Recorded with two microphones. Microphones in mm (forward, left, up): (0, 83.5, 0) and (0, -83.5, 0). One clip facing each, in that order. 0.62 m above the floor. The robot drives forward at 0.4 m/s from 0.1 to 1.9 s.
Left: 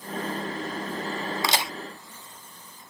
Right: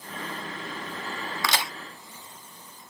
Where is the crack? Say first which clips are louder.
Even; 25° left (ahead or behind), 0.7 m; by 1.7 s 20° left (ahead or behind), 0.7 m.